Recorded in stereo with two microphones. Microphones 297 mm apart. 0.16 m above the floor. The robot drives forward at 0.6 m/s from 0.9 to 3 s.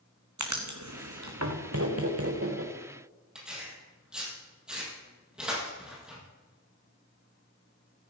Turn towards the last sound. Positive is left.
turn(degrees=-5)  # may be behind; listen again after turning